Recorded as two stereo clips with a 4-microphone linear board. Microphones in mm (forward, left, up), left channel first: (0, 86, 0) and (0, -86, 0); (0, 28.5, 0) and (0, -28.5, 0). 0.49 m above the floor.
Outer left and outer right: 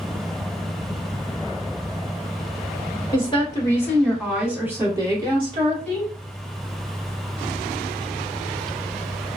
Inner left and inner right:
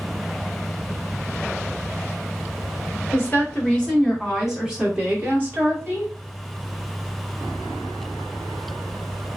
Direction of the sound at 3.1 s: 30° left (ahead or behind).